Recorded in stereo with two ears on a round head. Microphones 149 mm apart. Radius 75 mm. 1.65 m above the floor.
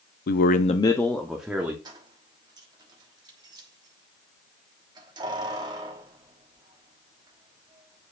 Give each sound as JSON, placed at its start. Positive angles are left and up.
{"t": 0.3, "sound": "a man speaking", "side_deg": 60, "distance_m": 0.5}
{"t": 1.9, "sound": "keys jangling", "side_deg": -25, "distance_m": 1.2}